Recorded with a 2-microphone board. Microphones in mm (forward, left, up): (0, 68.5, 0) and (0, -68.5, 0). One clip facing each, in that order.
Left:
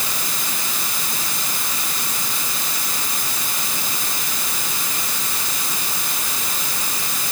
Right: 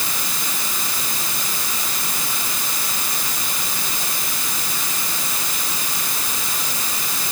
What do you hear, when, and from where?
Only background noise.